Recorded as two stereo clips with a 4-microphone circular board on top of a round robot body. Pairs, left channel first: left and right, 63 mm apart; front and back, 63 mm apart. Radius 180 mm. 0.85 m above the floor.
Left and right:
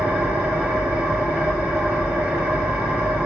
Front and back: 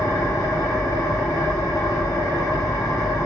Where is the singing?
No singing in this recording.